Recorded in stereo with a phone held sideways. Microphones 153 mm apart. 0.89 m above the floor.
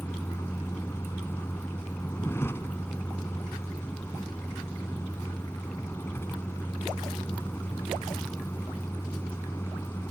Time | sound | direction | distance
0.0 | a vehicle | 15° left (ahead or behind) | ?